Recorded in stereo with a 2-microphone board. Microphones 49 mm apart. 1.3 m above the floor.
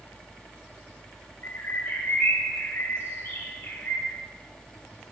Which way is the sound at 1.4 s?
55° left (ahead or behind).